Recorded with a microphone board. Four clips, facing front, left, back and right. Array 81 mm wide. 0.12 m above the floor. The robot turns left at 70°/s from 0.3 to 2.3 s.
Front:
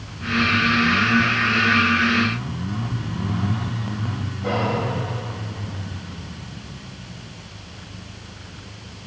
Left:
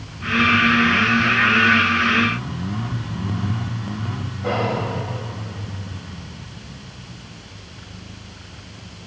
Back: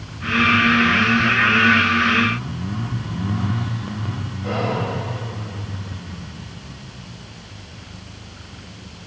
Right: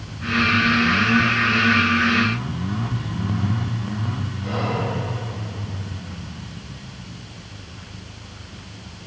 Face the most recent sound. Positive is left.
turn(degrees=80)